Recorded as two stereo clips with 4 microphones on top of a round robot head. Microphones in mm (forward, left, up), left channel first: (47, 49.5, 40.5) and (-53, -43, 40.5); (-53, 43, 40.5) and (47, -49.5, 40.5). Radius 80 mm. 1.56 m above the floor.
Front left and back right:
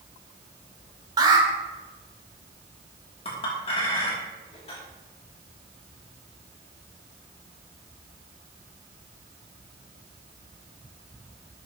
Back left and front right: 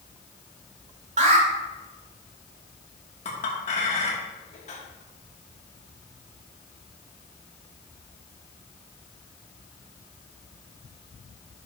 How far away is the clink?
About 2.5 m.